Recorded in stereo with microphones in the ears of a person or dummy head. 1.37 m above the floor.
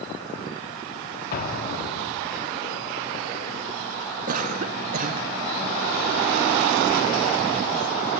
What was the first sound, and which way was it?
An explosion, 55° left (ahead or behind).